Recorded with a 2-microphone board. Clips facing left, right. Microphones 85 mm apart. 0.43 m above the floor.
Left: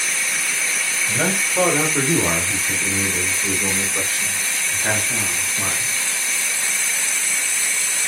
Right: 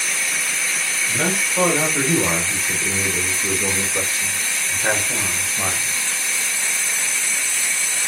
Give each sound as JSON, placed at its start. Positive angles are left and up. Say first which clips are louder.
{"t": 1.1, "sound": "a man speaking", "louder": "left 1 dB", "side_deg": 15, "distance_m": 1.6}